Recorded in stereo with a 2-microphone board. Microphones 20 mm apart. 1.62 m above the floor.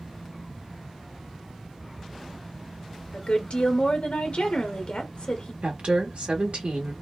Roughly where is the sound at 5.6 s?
Right.